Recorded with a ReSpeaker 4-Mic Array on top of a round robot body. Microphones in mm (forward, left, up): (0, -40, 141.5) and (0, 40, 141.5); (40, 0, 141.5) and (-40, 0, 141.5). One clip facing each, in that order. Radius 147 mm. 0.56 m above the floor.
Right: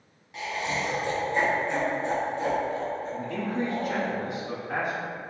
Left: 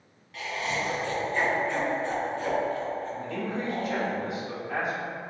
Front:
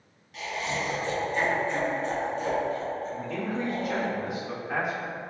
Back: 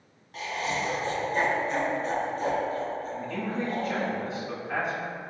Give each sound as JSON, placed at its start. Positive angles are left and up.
{"t": 0.3, "sound": "laughter", "azimuth_deg": -155, "distance_m": 0.9}
{"t": 3.1, "sound": "a man speaking", "azimuth_deg": -85, "distance_m": 1.4}